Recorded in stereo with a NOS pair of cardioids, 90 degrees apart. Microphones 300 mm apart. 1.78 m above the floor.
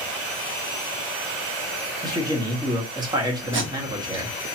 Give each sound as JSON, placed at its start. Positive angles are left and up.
{"t": 2.0, "sound": "a man speaking", "azimuth_deg": -15, "distance_m": 1.7}
{"t": 3.5, "sound": "tape being pulled", "azimuth_deg": -40, "distance_m": 1.8}